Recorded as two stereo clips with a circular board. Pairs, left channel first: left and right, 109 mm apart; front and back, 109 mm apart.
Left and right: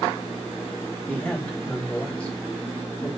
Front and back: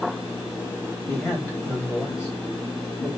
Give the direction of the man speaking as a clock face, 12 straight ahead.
11 o'clock.